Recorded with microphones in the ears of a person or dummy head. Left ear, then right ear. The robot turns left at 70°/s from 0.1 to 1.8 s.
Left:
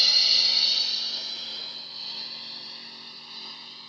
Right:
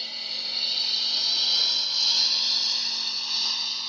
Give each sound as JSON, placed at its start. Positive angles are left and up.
{"t": 0.0, "sound": "a lawn mower", "side_deg": 40}